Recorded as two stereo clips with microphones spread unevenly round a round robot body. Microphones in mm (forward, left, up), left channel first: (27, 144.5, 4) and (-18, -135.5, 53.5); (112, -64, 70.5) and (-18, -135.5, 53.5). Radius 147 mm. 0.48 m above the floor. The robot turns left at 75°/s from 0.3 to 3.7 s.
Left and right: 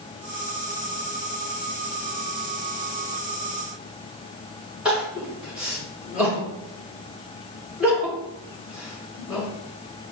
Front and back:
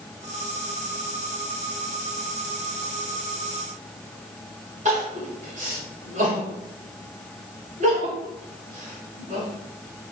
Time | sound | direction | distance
4.8 | crying | 170° left | 1.4 m